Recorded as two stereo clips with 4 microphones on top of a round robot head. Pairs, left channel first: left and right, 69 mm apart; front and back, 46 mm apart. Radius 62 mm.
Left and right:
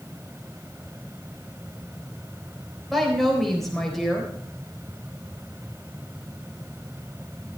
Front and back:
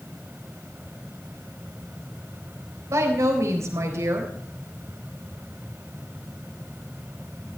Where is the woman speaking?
Straight behind, 4 m.